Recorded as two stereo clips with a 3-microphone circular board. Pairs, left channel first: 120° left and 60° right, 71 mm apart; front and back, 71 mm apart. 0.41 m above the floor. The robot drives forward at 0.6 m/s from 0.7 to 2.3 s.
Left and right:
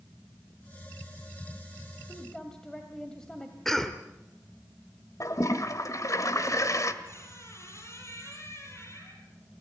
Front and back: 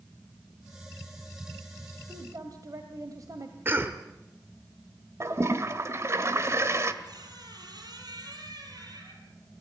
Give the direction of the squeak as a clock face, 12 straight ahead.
6 o'clock.